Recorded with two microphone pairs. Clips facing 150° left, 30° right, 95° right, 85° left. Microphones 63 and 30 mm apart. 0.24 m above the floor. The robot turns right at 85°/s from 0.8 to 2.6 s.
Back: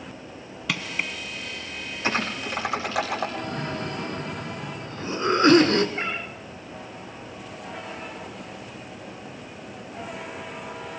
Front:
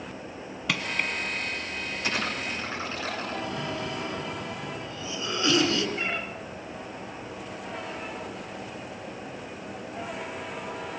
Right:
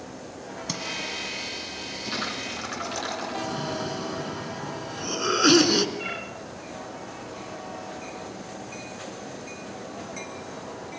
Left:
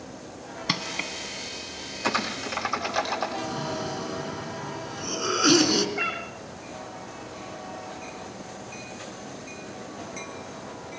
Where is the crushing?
55° left, 1.7 m; by 1.1 s 80° left, 1.7 m.